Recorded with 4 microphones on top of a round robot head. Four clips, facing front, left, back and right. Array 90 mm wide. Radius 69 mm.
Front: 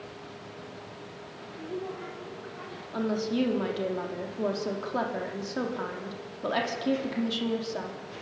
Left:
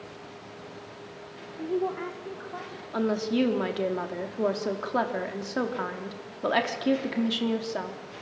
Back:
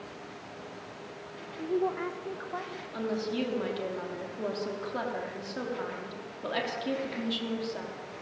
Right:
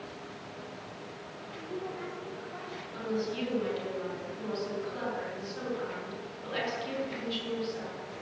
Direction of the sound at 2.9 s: 80° left.